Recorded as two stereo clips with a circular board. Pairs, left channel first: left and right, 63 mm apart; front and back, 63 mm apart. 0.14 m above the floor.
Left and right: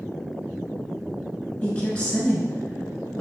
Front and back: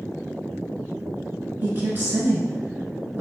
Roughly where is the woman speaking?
Behind left.